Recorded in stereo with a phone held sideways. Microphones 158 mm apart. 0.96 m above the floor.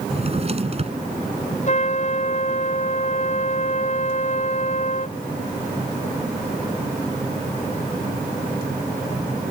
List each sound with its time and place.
0.1 s a drawer: 40° right (ahead or behind)
1.7 s a trumpet: 50° left (ahead or behind)